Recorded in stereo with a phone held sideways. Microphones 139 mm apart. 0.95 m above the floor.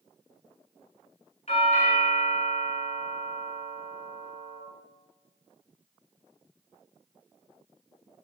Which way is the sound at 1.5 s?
50° left (ahead or behind).